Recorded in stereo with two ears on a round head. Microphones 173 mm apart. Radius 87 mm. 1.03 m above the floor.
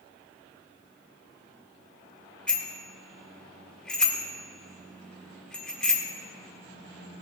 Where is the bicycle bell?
5° left (ahead or behind), 2.5 m.